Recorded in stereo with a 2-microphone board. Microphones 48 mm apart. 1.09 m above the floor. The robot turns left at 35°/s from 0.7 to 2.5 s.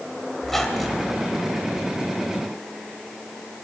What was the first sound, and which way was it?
A squeak, 5° left (ahead or behind).